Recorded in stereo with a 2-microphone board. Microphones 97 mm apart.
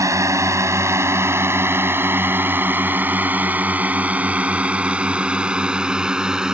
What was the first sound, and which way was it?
A drone, 35° right (ahead or behind).